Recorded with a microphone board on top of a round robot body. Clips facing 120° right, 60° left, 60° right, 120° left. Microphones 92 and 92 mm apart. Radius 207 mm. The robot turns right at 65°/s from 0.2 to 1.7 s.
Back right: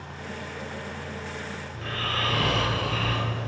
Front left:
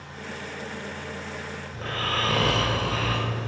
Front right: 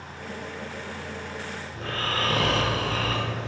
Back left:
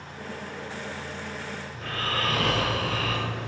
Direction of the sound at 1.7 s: Straight ahead.